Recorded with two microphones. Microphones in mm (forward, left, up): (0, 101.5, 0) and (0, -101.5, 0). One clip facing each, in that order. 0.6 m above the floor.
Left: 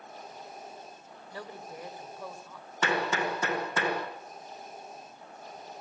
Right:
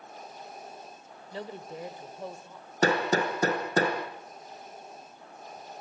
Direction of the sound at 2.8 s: 40° right (ahead or behind).